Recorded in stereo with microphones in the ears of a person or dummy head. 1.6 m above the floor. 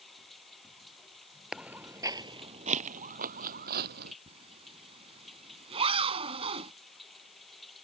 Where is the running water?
Centre (ahead or behind).